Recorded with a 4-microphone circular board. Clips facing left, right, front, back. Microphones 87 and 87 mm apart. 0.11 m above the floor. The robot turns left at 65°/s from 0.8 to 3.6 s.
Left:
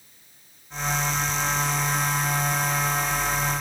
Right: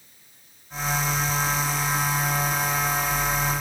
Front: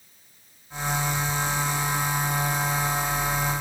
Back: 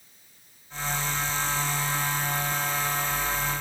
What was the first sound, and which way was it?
Only background noise.